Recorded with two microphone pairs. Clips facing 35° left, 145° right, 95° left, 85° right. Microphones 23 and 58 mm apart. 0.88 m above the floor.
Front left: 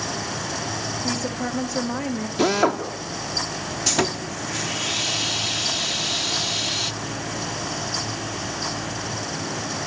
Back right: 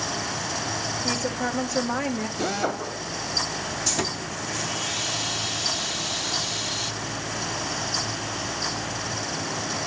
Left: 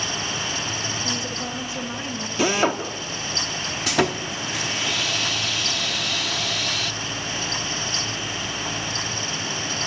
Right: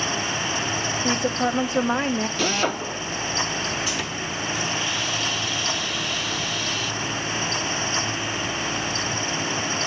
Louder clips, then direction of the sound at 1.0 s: Even, right 6 dB; 55° right.